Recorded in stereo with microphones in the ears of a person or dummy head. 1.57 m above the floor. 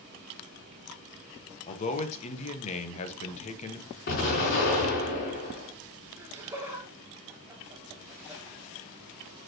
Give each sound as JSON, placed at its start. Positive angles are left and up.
{"t": 1.7, "sound": "a man speaking", "side_deg": 35, "distance_m": 1.4}
{"t": 4.1, "sound": "an explosion", "side_deg": 50, "distance_m": 4.0}
{"t": 6.2, "sound": "laughter", "side_deg": -10, "distance_m": 2.0}